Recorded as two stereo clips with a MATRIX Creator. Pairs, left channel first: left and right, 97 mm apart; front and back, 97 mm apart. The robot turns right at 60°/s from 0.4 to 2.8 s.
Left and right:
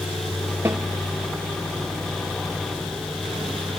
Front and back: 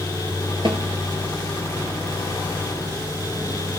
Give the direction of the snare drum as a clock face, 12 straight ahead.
5 o'clock.